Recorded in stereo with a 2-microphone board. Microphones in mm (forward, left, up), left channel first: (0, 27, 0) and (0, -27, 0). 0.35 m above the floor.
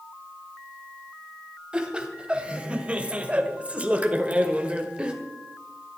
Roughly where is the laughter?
Centre.